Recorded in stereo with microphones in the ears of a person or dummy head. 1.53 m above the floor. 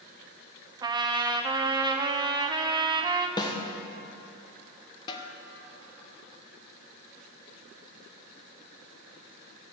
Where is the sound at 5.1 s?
25° left (ahead or behind), 0.9 m.